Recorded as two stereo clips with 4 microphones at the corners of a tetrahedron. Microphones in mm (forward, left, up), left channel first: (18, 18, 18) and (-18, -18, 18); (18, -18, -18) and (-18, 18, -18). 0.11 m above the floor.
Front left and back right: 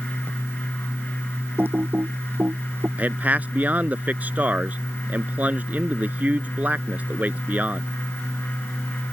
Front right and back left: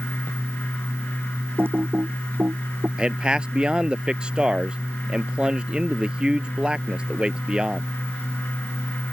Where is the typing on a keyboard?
Straight behind.